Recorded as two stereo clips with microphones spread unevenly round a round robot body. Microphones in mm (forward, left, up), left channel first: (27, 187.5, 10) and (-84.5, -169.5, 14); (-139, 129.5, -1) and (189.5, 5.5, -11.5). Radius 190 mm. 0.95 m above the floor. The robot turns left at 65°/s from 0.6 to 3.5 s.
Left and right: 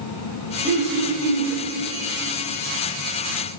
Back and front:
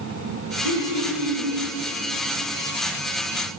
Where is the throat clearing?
35° right, 3.5 m; by 1.6 s 95° right, 3.5 m.